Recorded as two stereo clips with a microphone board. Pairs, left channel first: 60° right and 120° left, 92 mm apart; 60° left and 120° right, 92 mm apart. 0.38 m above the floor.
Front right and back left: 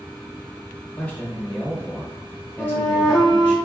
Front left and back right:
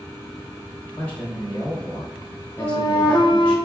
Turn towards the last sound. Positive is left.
turn(degrees=35)